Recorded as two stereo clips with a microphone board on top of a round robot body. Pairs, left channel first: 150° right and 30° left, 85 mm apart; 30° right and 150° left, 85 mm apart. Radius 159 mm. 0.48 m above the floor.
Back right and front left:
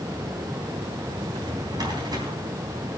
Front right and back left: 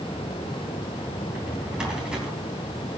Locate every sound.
1.2 s a drawer: 70° left, 3.5 m